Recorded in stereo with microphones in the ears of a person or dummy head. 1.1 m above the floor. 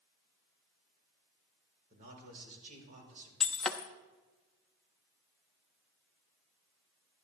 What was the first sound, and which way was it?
A man speaking, 55° right (ahead or behind).